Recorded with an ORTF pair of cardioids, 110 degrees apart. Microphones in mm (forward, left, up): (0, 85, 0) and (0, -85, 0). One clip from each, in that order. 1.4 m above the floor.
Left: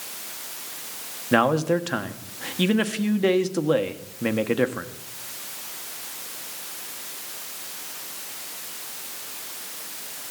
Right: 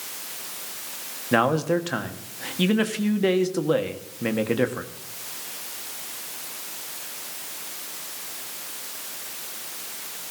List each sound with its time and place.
1.3 s a man speaking: 10° left, 1.2 m